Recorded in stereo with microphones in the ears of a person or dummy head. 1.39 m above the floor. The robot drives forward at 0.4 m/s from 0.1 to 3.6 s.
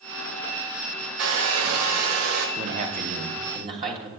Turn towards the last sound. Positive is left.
turn(degrees=-30)  # may be behind; listen again after turning